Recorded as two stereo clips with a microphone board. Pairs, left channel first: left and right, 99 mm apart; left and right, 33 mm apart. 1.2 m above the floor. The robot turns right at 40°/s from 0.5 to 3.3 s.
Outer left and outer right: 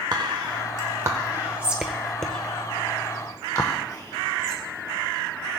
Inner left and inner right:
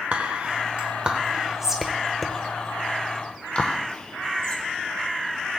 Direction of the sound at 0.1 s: 45° right (ahead or behind).